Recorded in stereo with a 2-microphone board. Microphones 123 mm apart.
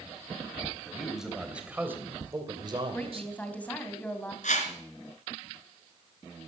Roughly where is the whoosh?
Left.